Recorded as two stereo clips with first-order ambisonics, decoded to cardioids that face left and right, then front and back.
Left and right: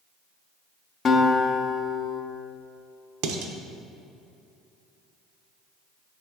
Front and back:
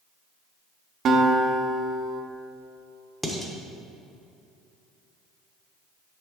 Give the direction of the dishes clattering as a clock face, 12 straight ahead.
3 o'clock.